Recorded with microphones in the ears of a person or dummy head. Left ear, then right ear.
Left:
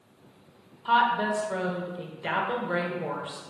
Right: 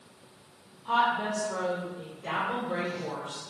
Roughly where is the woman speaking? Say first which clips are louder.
Left 3 dB; left.